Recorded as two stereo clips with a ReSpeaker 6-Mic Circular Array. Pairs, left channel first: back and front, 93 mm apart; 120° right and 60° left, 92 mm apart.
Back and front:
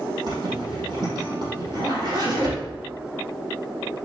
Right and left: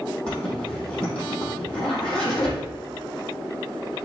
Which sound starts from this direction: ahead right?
A zipper, at 0.3 s.